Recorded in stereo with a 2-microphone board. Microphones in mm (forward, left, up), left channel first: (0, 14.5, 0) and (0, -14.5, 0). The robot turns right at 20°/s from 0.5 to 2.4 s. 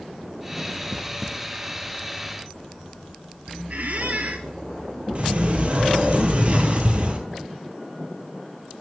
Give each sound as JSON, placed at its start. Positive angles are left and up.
{"t": 3.7, "sound": "a squeak", "side_deg": -60, "distance_m": 0.5}
{"t": 5.2, "sound": "a sliding door", "side_deg": -45, "distance_m": 0.8}